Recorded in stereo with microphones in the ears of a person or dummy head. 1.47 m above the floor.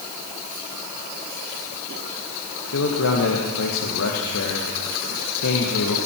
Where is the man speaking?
75° left (ahead or behind), 1.6 m.